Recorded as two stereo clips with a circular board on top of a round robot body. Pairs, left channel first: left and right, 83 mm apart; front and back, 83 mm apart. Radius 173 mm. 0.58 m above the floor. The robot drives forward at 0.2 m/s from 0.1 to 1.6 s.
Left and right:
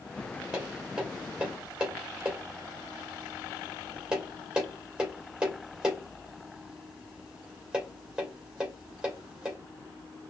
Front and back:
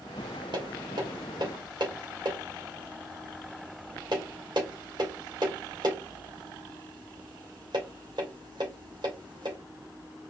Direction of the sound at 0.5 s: 165° right.